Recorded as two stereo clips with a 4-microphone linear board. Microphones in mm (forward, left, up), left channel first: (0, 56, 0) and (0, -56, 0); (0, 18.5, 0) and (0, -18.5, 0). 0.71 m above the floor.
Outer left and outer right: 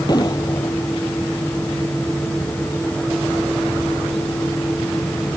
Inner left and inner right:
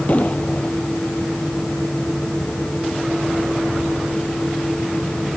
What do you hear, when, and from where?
0.1 s an explosion: 35° left (ahead or behind)